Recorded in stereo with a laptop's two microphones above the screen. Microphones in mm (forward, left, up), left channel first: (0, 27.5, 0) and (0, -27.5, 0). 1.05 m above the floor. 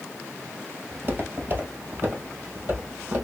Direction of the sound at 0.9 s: 35° right (ahead or behind).